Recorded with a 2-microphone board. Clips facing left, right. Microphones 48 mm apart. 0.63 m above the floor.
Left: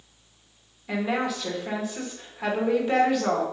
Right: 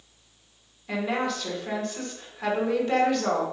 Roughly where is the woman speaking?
Centre.